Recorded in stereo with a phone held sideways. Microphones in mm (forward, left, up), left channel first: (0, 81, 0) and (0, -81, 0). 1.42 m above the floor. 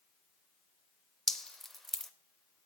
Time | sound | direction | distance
1.3 | dripping | centre (ahead or behind) | 0.8 m